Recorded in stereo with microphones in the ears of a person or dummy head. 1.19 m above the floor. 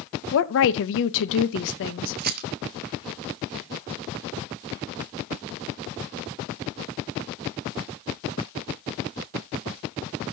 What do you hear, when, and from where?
0.3 s a woman speaking: 65° left (ahead or behind), 0.8 m
2.2 s a rattle: 50° right (ahead or behind), 0.8 m